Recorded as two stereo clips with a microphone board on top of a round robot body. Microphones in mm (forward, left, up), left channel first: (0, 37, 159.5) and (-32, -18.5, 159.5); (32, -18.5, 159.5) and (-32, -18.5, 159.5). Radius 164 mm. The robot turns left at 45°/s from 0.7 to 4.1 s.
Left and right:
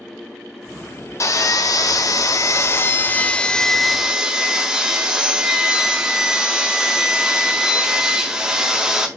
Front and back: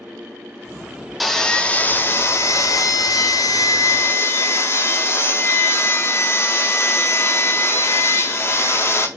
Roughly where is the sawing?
Left.